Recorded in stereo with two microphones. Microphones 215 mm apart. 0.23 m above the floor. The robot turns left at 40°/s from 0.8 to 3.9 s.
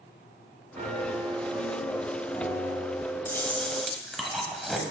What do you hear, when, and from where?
0.8 s a piano: 135° right, 1.2 m; by 3.1 s 130° left, 1.2 m
3.2 s chewing: 10° left (ahead or behind), 1.0 m; by 4.8 s centre (ahead or behind), 1.0 m